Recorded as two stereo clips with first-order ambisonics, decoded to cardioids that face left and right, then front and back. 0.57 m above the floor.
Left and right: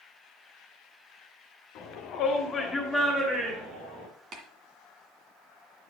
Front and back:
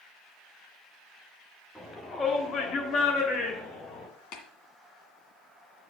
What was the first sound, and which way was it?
A shout, 85° left.